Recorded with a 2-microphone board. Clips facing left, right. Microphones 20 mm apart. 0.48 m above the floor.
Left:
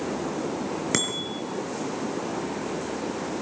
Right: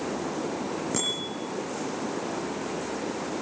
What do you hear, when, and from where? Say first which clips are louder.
0.9 s a bicycle bell: left 3 dB; 80° left, 4.5 m